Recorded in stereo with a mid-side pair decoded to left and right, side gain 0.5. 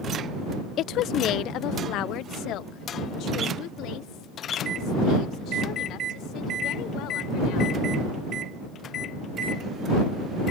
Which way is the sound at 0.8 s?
65° left.